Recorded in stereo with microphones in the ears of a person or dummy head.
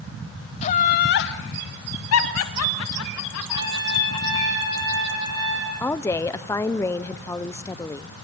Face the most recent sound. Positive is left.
turn(degrees=10)  # may be behind; listen again after turning